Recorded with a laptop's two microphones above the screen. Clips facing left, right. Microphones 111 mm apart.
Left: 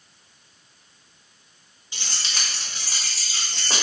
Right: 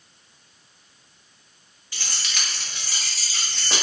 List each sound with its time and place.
1.9 s keys jangling: 20° left (ahead or behind), 0.9 m; by 3.8 s 45° left (ahead or behind), 2.5 m